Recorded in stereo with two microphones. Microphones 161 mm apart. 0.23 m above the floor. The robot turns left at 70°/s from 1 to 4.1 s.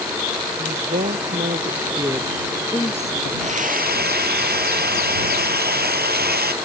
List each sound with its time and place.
0.6 s a woman speaking: 70° right (ahead or behind); by 3.3 s 60° left (ahead or behind)
3.4 s a hair dryer: 40° right; by 6.5 s 90° right